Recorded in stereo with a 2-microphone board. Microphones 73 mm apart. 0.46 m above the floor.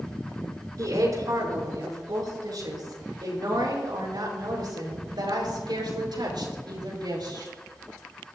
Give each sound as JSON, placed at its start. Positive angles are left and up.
{"t": 0.8, "sound": "a woman speaking", "side_deg": -55, "distance_m": 5.5}